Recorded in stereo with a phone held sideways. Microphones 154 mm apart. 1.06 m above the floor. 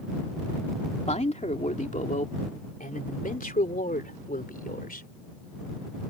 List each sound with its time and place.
1.1 s a man speaking: 50° left (ahead or behind); by 5.1 s 80° left